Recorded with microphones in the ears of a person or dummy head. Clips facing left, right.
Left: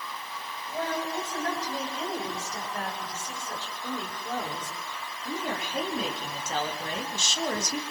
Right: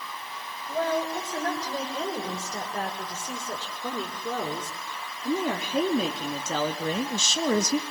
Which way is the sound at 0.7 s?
75° right (ahead or behind).